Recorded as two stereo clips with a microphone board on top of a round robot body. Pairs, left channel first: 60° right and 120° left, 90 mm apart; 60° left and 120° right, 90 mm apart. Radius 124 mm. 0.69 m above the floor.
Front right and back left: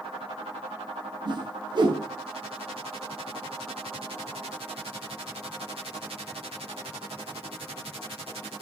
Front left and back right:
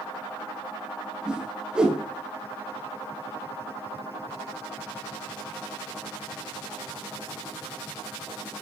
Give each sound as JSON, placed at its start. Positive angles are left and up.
{"t": 1.2, "sound": "a whoosh", "azimuth_deg": 160, "distance_m": 1.6}